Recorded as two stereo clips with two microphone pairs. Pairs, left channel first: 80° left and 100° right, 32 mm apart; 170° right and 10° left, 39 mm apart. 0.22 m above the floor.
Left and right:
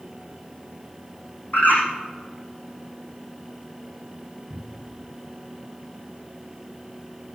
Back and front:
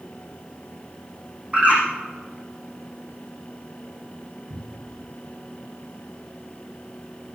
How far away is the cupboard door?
About 4.5 m.